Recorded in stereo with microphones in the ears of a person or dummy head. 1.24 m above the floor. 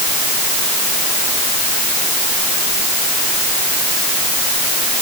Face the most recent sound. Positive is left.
No sound to turn to.